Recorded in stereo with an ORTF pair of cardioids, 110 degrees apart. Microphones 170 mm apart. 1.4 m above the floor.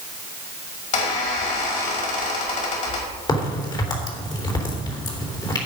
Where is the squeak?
45° left, 5 m.